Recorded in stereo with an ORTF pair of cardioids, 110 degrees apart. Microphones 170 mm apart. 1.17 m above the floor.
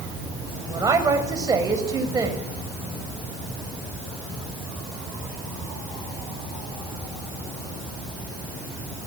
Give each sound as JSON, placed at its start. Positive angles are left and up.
{"t": 0.7, "sound": "a woman speaking", "azimuth_deg": -20, "distance_m": 6.5}